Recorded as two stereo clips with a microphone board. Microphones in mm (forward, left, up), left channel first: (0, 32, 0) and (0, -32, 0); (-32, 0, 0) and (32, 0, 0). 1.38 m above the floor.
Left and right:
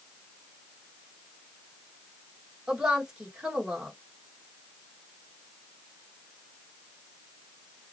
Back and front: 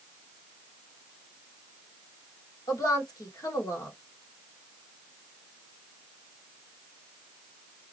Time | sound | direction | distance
2.7 | a woman speaking | 170° right | 1.7 m